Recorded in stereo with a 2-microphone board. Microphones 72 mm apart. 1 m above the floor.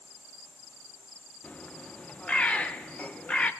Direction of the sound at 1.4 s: 20° left (ahead or behind).